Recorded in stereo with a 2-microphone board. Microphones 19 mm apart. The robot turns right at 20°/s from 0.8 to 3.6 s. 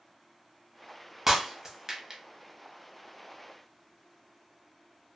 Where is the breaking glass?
20° right (ahead or behind), 0.6 m; by 2.2 s 35° right (ahead or behind), 0.6 m.